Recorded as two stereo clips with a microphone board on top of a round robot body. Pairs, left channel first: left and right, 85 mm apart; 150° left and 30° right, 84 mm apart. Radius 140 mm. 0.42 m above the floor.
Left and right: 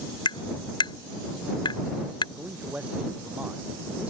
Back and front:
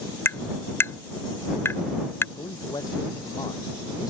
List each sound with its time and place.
0.2 s tapping: 90° left
2.4 s a man speaking: 165° right